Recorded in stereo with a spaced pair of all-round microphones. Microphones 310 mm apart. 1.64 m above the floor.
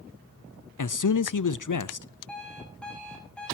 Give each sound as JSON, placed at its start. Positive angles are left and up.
{"t": 0.8, "sound": "a man speaking", "side_deg": 75, "distance_m": 0.5}
{"t": 2.3, "sound": "an alarm clock", "side_deg": 5, "distance_m": 7.5}